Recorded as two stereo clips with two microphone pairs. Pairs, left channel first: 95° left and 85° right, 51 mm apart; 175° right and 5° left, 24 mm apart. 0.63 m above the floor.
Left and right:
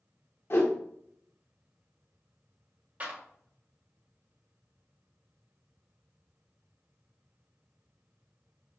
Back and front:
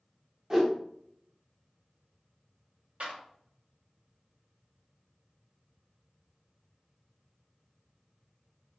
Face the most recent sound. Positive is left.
turn(degrees=-25)